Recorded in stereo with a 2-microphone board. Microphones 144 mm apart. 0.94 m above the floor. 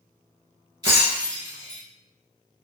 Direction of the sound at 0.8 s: 35° right (ahead or behind).